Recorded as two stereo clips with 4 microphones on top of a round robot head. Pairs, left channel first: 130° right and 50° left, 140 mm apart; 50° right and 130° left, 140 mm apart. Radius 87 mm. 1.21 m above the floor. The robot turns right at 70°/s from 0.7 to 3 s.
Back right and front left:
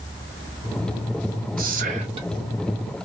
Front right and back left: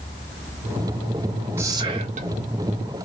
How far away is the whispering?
About 0.6 m.